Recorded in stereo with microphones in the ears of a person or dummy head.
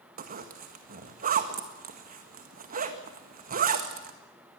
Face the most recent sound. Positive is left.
turn(degrees=-50)  # may be behind; listen again after turning